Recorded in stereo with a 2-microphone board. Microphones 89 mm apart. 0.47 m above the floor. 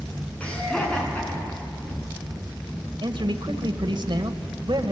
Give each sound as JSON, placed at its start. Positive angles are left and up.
{"t": 0.4, "sound": "laughter", "side_deg": 15, "distance_m": 5.5}
{"t": 3.0, "sound": "a man speaking", "side_deg": -65, "distance_m": 1.7}